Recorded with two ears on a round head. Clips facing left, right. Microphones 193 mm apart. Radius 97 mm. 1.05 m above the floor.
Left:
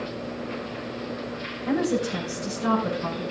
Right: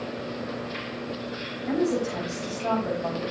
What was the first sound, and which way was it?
A woman speaking, 85° left.